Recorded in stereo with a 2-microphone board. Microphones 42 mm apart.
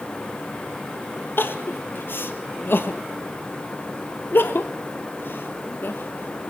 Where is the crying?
60° left (ahead or behind), 1.5 m.